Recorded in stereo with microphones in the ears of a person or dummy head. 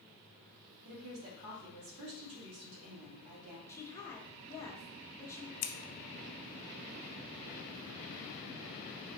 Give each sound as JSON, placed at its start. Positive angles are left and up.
{"t": 0.8, "sound": "a woman speaking", "side_deg": -90, "distance_m": 2.5}
{"t": 3.7, "sound": "a woman speaking", "side_deg": 15, "distance_m": 1.1}
{"t": 5.6, "sound": "scissors", "side_deg": 80, "distance_m": 0.7}